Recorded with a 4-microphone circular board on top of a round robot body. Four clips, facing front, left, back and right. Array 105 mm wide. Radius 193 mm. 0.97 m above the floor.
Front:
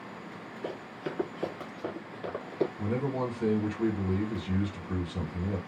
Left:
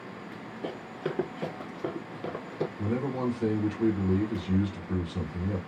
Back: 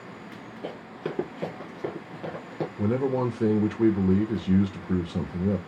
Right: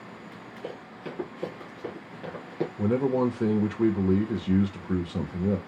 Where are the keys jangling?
No keys jangling in this recording.